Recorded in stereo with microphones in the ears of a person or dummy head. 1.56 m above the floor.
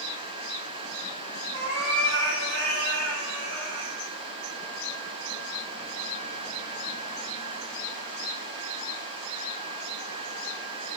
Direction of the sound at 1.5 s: 80° right.